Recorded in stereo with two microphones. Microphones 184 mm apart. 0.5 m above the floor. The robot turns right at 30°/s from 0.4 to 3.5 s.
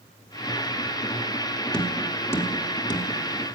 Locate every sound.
1.7 s tapping: 5° left (ahead or behind), 1.0 m; by 3.1 s 25° left (ahead or behind), 1.0 m